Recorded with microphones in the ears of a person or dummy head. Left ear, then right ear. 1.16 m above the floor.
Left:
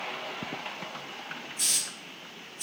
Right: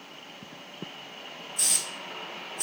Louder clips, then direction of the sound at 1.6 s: Right 1 dB; 40° right (ahead or behind).